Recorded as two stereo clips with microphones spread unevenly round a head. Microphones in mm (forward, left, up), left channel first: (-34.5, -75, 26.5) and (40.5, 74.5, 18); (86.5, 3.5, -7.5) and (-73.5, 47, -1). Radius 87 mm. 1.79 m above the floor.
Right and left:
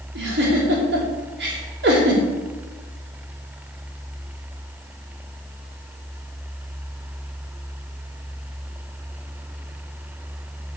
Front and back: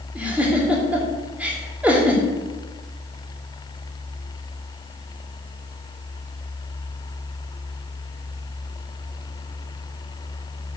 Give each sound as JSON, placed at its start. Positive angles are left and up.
{"t": 0.1, "sound": "a giggle", "azimuth_deg": 85, "distance_m": 3.0}